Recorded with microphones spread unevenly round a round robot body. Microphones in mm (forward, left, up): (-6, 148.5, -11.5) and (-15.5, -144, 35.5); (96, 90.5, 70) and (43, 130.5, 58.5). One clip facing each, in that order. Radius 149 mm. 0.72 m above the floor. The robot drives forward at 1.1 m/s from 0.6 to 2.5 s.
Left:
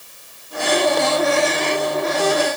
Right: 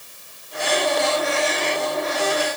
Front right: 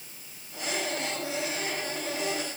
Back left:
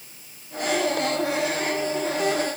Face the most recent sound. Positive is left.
No sound to turn to.